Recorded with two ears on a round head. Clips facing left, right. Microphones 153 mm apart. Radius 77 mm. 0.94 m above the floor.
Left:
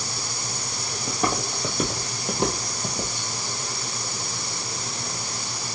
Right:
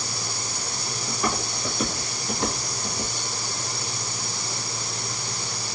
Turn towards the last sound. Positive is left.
turn(degrees=35)  # may be behind; listen again after turning